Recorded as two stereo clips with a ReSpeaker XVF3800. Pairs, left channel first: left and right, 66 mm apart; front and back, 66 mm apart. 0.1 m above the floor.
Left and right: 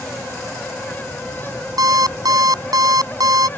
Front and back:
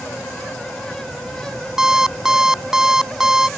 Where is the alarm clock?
100° right.